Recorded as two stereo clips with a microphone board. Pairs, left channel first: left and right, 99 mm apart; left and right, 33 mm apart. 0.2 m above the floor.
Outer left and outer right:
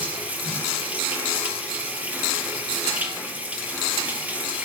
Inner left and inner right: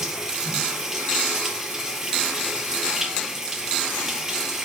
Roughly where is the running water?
Centre.